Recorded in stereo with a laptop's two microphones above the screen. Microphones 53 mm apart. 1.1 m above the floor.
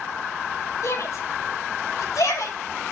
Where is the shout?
70° left (ahead or behind), 5.5 m; by 2.6 s 80° left, 6.5 m.